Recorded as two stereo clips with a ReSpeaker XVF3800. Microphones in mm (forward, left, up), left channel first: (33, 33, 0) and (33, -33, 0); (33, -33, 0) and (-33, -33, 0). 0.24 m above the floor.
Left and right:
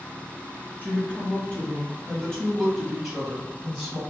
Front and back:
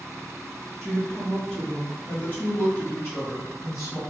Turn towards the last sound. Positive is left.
turn(degrees=-10)